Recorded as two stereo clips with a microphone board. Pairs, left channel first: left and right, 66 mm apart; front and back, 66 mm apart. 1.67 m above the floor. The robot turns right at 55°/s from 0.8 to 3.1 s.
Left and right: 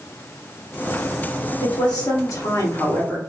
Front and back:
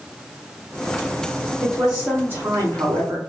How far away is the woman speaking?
About 1.9 m.